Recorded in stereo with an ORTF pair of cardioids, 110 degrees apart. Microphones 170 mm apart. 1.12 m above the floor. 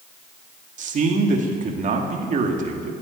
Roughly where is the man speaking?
Ahead right.